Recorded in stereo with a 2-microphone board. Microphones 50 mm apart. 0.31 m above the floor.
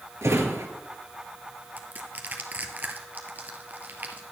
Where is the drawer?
75° right (ahead or behind), 1.9 m.